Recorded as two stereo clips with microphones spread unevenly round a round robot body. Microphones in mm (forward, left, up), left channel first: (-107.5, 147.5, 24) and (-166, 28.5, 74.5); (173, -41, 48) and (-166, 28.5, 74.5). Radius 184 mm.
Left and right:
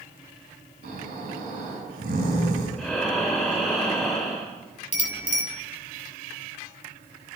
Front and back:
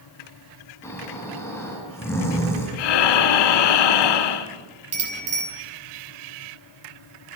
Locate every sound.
0.8 s snoring: 95° right, 5.5 m
2.8 s breathing: 30° right, 1.4 m
4.9 s a bicycle bell: 100° left, 5 m